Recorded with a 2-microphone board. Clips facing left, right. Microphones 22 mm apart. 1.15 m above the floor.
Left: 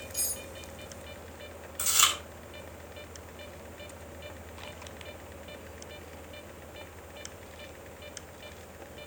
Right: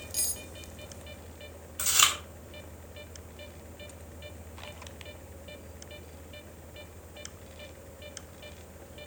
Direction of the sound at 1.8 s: 25° right (ahead or behind).